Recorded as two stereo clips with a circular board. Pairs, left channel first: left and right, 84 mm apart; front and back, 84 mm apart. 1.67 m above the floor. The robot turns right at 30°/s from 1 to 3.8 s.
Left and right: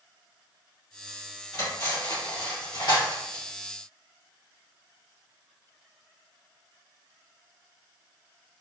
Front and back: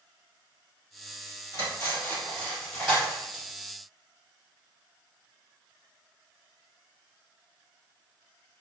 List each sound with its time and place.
1.5 s cutlery clinking: 40° left, 1.5 m; by 3.4 s 95° left, 1.5 m